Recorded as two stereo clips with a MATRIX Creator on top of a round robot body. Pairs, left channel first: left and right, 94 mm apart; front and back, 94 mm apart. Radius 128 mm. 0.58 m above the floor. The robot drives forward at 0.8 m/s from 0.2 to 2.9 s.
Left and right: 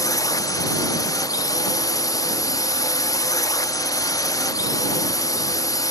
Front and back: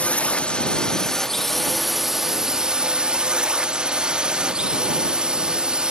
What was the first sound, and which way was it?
A drone, 70° left.